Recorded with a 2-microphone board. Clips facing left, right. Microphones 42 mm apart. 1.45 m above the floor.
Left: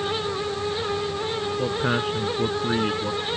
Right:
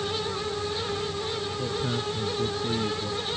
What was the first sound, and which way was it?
A man speaking, 60° left (ahead or behind).